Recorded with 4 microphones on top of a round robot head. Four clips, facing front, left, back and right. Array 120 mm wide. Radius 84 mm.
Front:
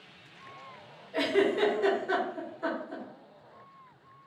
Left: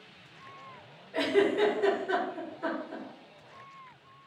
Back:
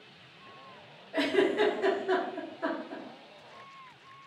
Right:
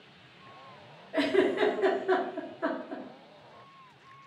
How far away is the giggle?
About 1.9 m.